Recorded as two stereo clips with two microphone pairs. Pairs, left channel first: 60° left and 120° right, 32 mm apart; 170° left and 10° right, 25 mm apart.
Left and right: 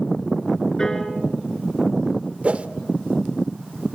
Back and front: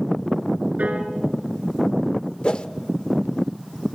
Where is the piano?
5° right, 2.5 m.